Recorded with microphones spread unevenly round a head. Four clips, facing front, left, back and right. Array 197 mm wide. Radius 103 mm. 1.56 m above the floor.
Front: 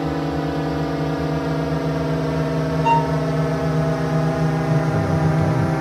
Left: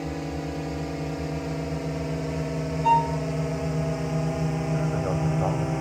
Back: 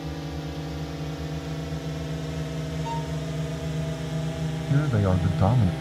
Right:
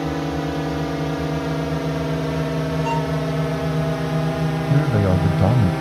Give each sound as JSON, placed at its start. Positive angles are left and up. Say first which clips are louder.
{"t": 0.0, "sound": "a drone", "louder": "right 8 dB, front 12 dB", "azimuth_deg": -30}
{"t": 2.8, "sound": "a violin", "louder": "left 7 dB, front 17 dB", "azimuth_deg": 15}
{"t": 4.7, "sound": "a man speaking", "louder": "right 10 dB, front 5 dB", "azimuth_deg": -105}